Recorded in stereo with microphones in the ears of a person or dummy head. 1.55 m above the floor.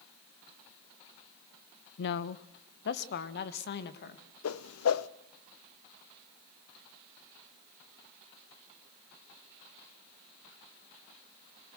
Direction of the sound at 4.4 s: 80° left.